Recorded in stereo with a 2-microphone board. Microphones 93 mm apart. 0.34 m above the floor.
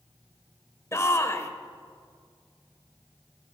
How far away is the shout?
About 1.0 m.